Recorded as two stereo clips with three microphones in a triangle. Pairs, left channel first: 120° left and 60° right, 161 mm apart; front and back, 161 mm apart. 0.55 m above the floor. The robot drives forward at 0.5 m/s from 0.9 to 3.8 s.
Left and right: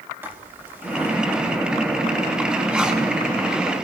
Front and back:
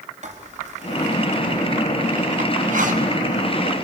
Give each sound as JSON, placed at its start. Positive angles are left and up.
{"t": 0.2, "sound": "writing", "azimuth_deg": -135, "distance_m": 4.5}